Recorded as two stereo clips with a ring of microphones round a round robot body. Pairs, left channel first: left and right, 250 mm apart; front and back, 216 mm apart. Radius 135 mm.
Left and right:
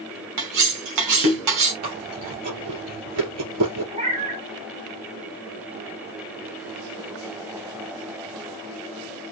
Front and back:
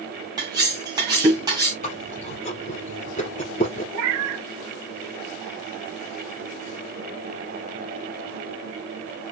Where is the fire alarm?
No fire alarm in this recording.